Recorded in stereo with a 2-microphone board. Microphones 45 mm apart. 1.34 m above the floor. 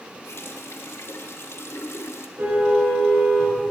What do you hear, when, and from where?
0.2 s a running tap: 65° left (ahead or behind), 1.7 m
2.4 s a car horn: 60° right (ahead or behind), 9 m